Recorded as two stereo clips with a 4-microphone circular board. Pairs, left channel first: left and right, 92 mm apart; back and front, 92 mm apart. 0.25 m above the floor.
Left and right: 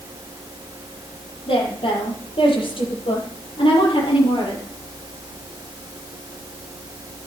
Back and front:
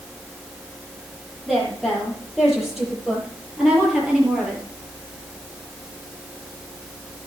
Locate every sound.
1.5 s a woman speaking: 90° left, 7.5 m; by 4.6 s 80° left, 5.5 m